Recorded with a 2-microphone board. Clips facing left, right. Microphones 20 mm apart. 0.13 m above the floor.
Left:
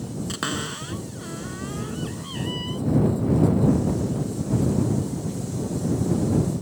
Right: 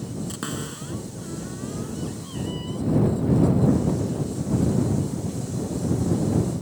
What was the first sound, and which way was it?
A cupboard door, 35° left (ahead or behind).